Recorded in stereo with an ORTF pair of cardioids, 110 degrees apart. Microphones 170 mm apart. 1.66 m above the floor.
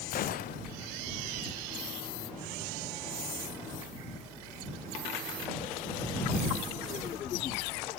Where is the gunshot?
55° left.